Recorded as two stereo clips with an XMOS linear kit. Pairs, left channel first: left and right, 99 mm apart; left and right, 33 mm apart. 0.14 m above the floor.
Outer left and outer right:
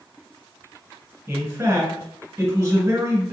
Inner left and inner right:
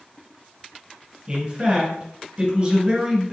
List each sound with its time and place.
1.3 s a man speaking: 20° right (ahead or behind), 1.4 m